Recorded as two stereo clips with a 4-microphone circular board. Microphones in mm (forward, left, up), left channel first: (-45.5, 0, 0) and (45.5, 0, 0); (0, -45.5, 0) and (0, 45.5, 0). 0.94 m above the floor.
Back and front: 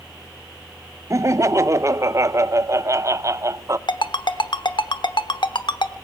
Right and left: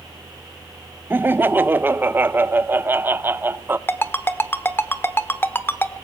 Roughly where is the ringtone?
Behind right.